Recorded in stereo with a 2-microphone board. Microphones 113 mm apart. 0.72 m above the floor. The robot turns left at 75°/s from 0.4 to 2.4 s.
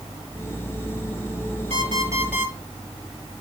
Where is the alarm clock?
120° right, 6.5 m; by 2.5 s 170° right, 6.5 m.